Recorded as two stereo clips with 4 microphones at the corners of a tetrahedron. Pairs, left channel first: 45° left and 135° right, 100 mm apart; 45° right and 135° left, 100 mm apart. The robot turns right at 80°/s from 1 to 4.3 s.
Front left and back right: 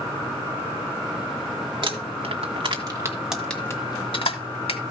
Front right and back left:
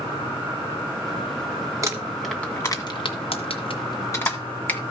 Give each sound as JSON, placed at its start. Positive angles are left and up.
{"t": 1.8, "sound": "crumpling", "azimuth_deg": -170, "distance_m": 1.7}